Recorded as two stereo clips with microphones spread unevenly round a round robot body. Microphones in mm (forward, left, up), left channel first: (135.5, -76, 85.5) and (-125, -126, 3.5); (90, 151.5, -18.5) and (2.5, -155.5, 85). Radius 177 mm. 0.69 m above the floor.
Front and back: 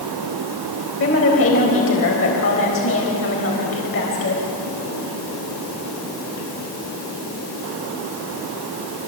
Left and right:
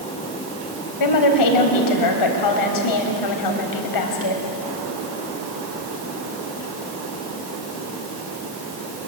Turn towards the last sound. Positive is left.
turn(degrees=65)